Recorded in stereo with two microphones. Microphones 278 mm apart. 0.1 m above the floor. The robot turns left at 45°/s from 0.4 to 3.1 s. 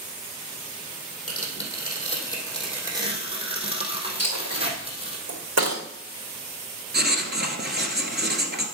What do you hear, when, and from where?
1.3 s tearing paper: 60° left, 3 m; by 5.2 s 20° right, 3 m
4.2 s a dropped coin: 65° right (ahead or behind), 3.5 m
6.9 s writing: 35° right (ahead or behind), 1.4 m